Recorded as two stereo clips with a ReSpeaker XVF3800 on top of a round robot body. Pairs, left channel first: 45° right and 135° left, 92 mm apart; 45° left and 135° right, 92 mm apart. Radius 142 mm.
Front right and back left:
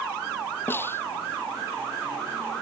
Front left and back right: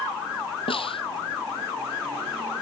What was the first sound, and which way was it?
A snare drum, 20° left.